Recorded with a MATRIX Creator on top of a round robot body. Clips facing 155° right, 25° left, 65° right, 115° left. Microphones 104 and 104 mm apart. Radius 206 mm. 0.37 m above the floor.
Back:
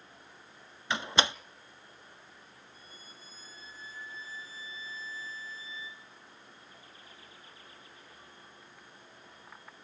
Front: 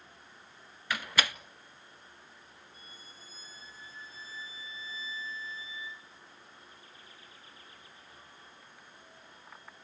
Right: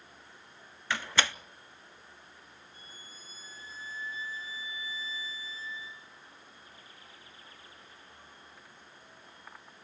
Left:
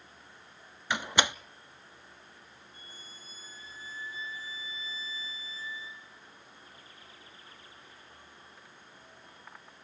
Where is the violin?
40° left, 7 m.